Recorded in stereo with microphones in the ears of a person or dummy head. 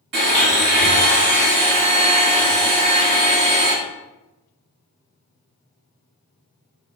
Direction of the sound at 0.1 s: 55° right (ahead or behind).